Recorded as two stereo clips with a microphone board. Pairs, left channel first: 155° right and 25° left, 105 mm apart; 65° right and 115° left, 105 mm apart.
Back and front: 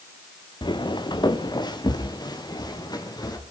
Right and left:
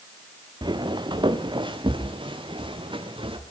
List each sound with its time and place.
0.6 s footsteps: 160° left, 2 m; by 3.4 s 150° left, 4 m